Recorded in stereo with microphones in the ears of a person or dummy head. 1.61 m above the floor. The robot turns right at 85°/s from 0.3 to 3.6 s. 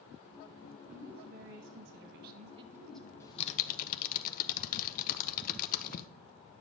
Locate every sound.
0.9 s a woman speaking: 175° right, 1.7 m; by 3.1 s 15° left, 1.7 m
3.2 s typing on a keyboard: 20° left (ahead or behind), 0.8 m; by 6.1 s 50° left (ahead or behind), 0.8 m